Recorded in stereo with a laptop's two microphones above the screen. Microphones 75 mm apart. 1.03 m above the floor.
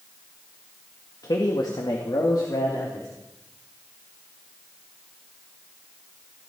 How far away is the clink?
No clink in this recording.